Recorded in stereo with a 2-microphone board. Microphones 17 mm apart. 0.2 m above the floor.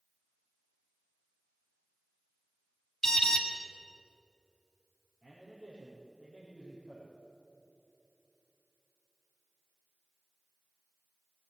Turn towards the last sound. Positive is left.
turn(degrees=-65)  # may be behind; listen again after turning